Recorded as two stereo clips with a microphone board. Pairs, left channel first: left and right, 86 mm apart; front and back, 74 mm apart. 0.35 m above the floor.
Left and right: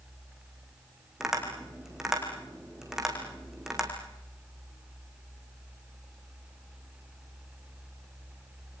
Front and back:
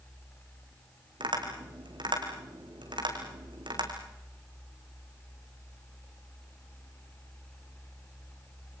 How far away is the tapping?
About 5 m.